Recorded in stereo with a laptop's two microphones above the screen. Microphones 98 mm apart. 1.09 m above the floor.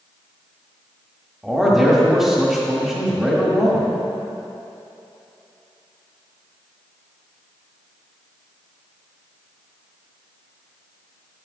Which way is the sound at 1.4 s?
5° right (ahead or behind).